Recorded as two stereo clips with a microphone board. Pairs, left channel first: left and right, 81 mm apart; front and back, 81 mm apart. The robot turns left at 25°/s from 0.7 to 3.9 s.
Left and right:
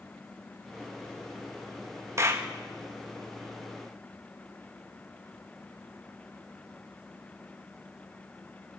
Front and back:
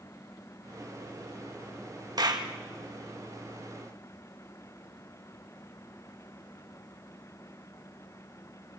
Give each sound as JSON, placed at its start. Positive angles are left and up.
{"t": 2.2, "sound": "a clap", "azimuth_deg": -145, "distance_m": 1.6}